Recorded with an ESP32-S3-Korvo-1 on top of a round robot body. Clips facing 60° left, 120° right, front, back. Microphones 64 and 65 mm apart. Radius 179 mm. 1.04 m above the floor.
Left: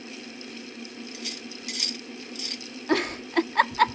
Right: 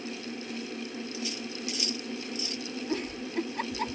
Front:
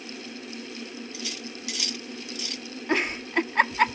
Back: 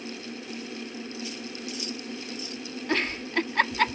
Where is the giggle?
80° left.